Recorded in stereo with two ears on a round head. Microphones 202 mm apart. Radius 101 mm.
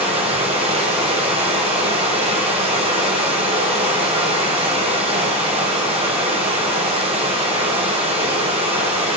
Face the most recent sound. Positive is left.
turn(degrees=-30)  # may be behind; listen again after turning